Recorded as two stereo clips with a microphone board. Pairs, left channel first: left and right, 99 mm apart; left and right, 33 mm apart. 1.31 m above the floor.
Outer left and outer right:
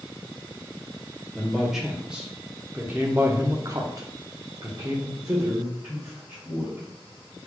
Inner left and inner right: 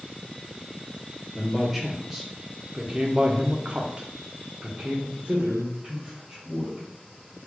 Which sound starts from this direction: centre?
A man speaking, at 1.3 s.